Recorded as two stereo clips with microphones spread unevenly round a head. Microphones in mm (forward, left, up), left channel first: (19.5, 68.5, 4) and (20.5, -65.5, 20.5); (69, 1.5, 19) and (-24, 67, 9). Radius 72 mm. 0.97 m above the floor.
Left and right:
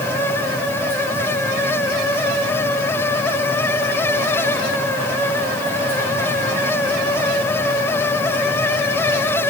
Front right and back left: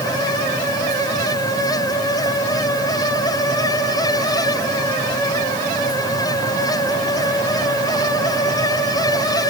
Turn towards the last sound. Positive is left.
No sound to turn to.